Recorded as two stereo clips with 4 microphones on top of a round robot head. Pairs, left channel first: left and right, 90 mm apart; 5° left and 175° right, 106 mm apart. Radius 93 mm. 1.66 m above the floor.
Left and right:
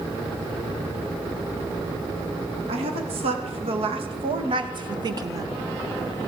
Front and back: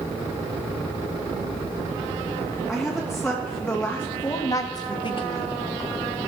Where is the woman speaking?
90° right, 3.5 m; by 5.5 s 35° right, 1.6 m.